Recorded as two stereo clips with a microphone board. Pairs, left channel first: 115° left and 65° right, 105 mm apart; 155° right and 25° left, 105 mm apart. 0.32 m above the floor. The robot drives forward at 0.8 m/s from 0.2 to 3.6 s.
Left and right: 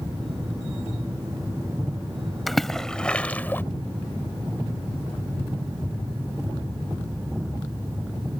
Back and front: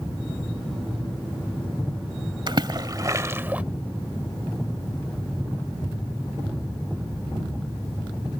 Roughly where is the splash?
Ahead left.